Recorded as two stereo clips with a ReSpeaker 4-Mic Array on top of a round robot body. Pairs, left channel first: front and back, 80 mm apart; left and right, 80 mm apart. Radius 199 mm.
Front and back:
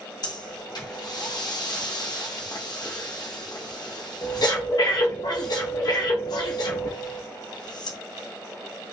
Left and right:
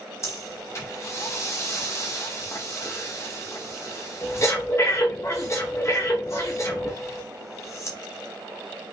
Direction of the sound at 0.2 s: 35° left.